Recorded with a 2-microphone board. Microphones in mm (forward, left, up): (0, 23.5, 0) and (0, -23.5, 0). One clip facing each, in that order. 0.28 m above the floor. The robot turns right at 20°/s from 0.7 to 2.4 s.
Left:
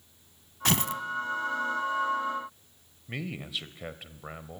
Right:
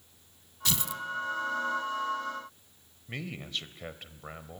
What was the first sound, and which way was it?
Tearing paper, 55° left (ahead or behind).